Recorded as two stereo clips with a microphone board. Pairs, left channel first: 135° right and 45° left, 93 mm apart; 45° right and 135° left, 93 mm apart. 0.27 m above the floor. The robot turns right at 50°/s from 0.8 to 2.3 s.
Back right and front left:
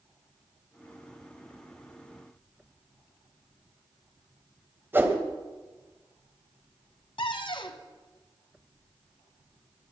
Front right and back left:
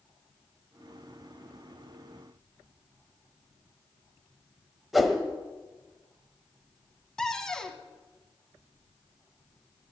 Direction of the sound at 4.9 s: 50° left.